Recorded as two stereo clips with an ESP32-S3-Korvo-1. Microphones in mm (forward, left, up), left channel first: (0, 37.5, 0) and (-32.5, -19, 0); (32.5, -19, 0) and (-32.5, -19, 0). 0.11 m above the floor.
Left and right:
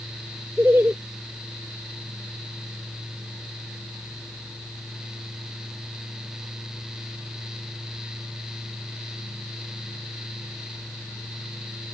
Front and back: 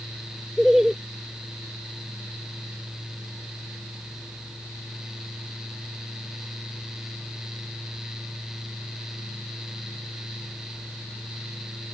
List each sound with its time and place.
0.6 s laughter: 100° right